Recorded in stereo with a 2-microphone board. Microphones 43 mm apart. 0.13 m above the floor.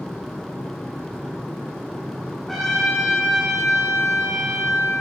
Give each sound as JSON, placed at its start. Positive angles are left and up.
{"t": 2.5, "sound": "a trumpet", "side_deg": 5, "distance_m": 5.0}